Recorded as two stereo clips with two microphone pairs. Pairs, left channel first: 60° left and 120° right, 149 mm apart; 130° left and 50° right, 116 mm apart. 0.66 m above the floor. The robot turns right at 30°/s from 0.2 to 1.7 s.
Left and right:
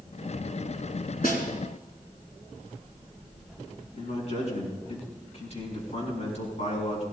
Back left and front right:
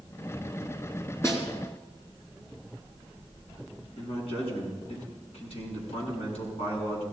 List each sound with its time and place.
1.2 s a snare drum: 65° left, 3 m; by 1.5 s 70° left, 3 m
3.9 s a man speaking: 100° left, 6.5 m